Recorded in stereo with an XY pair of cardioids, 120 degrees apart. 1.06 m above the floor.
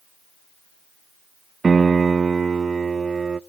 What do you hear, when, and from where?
1.6 s a piano: 30° right, 0.5 m